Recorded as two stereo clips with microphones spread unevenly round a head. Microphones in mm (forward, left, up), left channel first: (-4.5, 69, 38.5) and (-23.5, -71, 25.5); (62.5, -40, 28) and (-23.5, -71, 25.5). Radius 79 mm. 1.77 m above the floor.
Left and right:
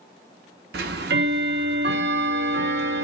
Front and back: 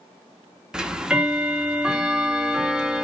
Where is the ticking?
75° right, 0.5 m.